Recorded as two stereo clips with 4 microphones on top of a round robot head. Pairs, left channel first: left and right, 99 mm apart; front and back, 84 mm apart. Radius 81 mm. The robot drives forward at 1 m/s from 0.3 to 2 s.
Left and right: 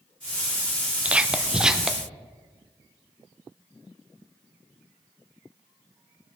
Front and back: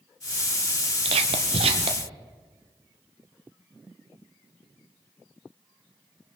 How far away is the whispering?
About 0.8 m.